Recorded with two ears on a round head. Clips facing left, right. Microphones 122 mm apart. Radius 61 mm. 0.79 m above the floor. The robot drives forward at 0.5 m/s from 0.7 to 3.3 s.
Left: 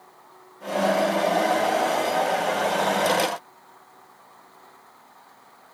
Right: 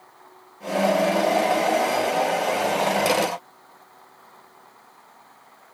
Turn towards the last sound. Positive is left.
No sound to turn to.